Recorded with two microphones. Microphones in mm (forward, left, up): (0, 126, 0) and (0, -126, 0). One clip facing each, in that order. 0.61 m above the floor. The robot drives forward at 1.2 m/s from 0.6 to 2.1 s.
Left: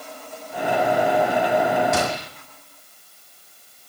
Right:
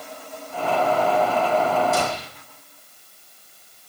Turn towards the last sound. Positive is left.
turn(degrees=80)